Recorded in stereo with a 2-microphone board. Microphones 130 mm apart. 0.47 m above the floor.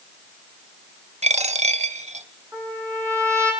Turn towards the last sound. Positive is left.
turn(degrees=-25)  # may be behind; listen again after turning